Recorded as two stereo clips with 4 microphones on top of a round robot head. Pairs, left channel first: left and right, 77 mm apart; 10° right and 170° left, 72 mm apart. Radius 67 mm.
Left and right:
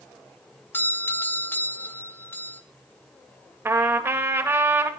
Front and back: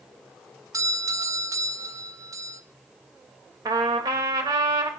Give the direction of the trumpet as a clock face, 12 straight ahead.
5 o'clock.